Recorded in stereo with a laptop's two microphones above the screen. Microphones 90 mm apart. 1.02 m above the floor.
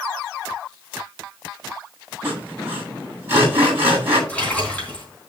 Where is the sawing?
25° right (ahead or behind), 8 m.